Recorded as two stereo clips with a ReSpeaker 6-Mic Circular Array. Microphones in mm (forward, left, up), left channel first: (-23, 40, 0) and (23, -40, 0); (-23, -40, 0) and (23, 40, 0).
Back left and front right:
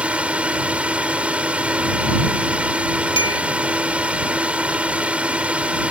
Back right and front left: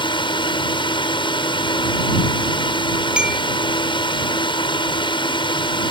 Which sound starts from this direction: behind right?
A drone, at 0.0 s.